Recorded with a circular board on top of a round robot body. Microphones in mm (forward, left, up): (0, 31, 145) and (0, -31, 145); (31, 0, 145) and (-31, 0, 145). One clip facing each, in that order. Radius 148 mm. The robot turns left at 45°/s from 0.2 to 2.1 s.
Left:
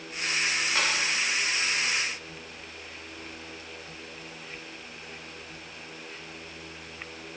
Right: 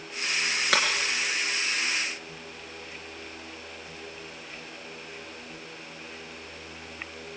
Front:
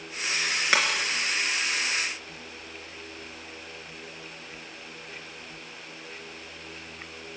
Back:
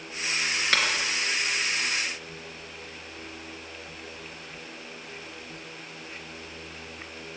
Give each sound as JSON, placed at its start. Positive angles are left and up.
{"t": 0.7, "sound": "breaking glass", "azimuth_deg": -75, "distance_m": 4.0}